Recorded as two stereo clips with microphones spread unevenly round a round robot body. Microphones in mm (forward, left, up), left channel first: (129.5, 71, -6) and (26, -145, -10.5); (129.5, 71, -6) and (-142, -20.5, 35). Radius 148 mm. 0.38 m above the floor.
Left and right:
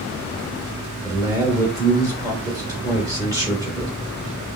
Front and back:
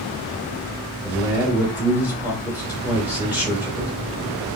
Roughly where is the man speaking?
Right.